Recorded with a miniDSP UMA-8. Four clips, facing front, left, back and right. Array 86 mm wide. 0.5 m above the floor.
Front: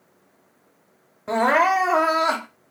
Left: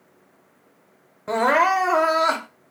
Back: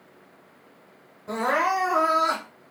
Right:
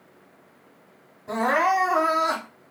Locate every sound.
1.3 s crying: 60° left, 0.9 m